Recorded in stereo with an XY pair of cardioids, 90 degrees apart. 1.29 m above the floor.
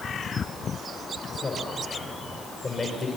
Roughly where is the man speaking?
Ahead left.